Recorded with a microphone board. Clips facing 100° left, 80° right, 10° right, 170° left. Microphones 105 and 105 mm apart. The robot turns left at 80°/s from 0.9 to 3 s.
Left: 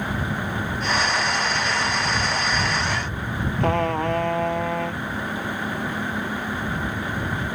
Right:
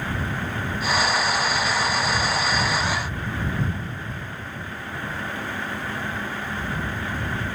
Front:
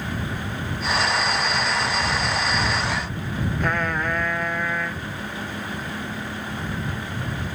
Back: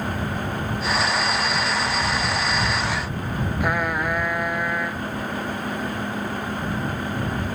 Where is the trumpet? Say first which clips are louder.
Left 10 dB, back 1 dB; 90° left.